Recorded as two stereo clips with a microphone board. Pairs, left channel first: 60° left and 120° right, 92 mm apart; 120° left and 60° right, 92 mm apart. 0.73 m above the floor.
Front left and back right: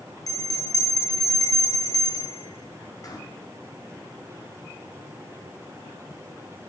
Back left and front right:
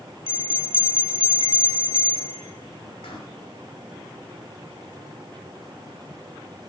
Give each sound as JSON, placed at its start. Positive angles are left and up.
{"t": 0.3, "sound": "a bell", "azimuth_deg": 110, "distance_m": 2.0}